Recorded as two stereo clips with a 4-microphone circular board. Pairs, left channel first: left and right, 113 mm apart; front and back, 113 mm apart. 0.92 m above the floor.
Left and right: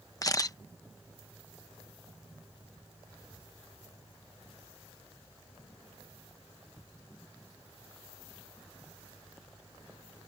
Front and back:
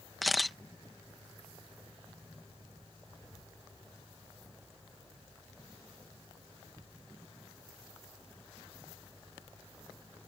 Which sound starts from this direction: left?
A camera shutter, at 0.2 s.